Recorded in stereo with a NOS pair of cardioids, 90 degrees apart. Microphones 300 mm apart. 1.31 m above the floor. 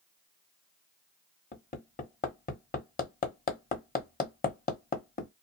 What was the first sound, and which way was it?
Hammering, 30° left.